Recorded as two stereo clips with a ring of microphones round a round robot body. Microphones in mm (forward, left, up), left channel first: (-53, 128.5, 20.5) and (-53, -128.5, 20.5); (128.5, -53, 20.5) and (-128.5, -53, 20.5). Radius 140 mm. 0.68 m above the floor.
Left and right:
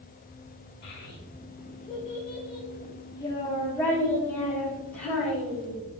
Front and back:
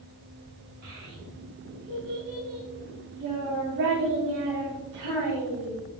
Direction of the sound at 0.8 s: 140° left.